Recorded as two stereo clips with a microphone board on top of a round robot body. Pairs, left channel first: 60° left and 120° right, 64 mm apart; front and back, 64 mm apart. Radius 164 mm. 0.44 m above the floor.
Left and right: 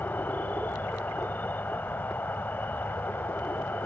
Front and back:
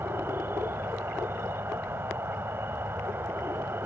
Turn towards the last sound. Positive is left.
turn(degrees=125)